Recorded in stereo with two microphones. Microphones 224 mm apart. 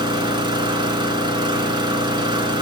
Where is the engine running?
20° right (ahead or behind), 0.7 m.